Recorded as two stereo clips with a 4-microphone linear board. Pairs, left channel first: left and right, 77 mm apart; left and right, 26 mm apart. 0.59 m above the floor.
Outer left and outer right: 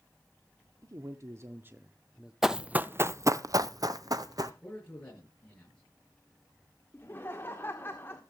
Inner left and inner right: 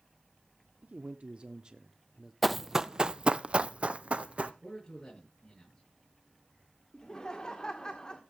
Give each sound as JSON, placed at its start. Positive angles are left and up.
{"t": 0.8, "sound": "a man speaking", "side_deg": -50, "distance_m": 1.3}
{"t": 2.4, "sound": "running footsteps", "side_deg": -5, "distance_m": 0.7}
{"t": 4.6, "sound": "a man speaking", "side_deg": 20, "distance_m": 9.5}
{"t": 6.9, "sound": "laughter", "side_deg": 30, "distance_m": 1.6}